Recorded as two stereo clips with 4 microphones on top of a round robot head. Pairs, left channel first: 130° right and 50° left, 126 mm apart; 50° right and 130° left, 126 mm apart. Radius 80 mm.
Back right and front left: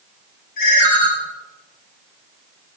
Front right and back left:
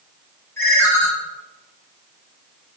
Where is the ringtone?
120° right, 1.6 m.